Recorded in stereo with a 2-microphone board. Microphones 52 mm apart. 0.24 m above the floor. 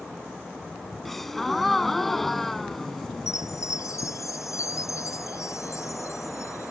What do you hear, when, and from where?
1.1 s a gasp: 5° left (ahead or behind)
3.3 s a chime: 85° left